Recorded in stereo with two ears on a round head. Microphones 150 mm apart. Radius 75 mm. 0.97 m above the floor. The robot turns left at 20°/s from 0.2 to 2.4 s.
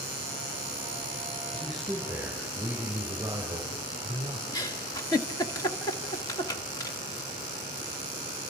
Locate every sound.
1.5 s a man speaking: 5° left (ahead or behind), 5.5 m; by 4.4 s 10° right (ahead or behind), 5.5 m
4.5 s a giggle: 20° left (ahead or behind), 1.7 m